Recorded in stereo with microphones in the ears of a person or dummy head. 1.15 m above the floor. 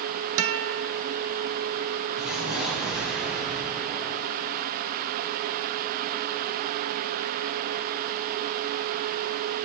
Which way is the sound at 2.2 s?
5° right (ahead or behind).